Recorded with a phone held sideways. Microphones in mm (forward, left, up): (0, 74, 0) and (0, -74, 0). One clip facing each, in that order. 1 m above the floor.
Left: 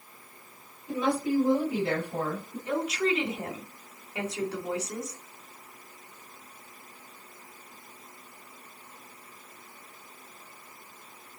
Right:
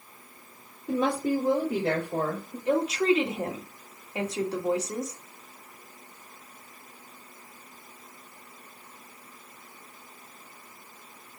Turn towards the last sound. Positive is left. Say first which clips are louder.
# right 4 dB
turn(degrees=-30)  # may be behind; listen again after turning